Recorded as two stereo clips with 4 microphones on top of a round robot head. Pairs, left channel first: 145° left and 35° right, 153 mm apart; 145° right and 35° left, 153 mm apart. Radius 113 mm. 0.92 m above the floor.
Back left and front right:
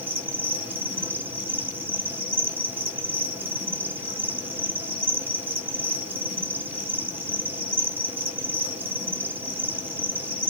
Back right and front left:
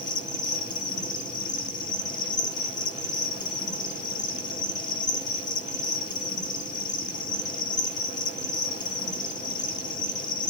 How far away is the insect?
About 1.3 m.